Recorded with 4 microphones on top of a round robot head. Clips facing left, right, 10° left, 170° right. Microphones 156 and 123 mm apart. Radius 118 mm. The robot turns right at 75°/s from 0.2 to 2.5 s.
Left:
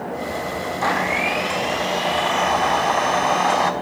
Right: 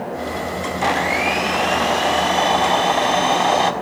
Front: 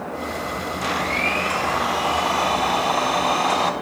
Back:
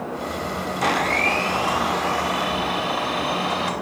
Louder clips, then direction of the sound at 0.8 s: Right 3 dB, back 4 dB; 160° right.